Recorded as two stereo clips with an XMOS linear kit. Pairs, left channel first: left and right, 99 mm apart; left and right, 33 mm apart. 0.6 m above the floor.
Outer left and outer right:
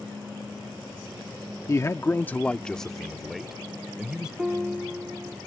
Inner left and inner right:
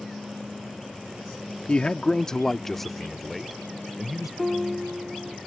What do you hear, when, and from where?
1.7 s a man speaking: 40° left (ahead or behind); by 4.3 s 10° right (ahead or behind)
4.4 s a piano: 5° right (ahead or behind)